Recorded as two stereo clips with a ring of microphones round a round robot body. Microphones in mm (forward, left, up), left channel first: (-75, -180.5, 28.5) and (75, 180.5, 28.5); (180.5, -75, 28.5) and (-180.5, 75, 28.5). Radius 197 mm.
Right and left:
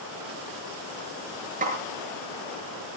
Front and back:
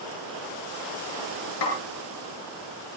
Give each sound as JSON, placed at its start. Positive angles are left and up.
{"t": 1.6, "sound": "a snare drum", "azimuth_deg": 0, "distance_m": 7.5}